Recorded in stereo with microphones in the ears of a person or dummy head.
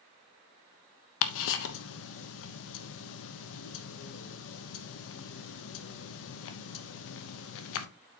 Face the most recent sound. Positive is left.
turn(degrees=75)  # may be behind; listen again after turning